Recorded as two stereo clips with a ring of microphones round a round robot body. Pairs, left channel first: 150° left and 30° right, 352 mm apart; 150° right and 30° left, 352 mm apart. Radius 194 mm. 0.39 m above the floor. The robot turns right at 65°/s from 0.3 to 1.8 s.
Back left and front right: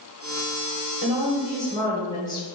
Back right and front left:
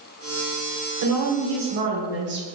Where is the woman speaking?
25° left, 1.1 m; by 2.5 s 75° left, 1.1 m.